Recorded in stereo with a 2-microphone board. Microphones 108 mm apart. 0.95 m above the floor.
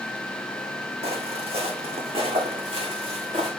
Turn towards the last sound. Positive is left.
turn(degrees=-55)  # may be behind; listen again after turning